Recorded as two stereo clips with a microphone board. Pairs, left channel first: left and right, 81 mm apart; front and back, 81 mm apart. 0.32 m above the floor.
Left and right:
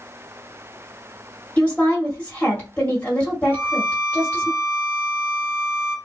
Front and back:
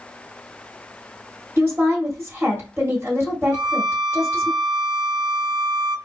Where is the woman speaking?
155° left, 1.6 m.